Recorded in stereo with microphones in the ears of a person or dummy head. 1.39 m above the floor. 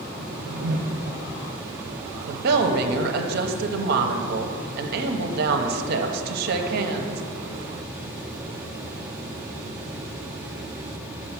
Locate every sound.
0.2 s a whoosh: 55° right (ahead or behind), 0.5 m
2.3 s a woman speaking: 60° right (ahead or behind), 0.7 m